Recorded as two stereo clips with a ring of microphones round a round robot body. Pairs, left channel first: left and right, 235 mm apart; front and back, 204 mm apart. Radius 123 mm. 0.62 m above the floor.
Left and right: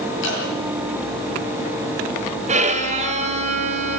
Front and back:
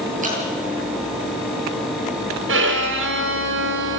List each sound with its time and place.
0.2 s dripping: 130° left, 10 m
2.5 s a violin: 150° right, 2.5 m